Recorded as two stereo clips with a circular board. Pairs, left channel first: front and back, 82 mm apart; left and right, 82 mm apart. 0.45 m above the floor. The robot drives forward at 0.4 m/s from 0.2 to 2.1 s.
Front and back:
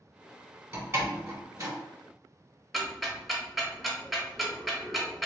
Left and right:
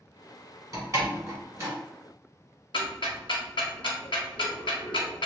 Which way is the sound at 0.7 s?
130° right.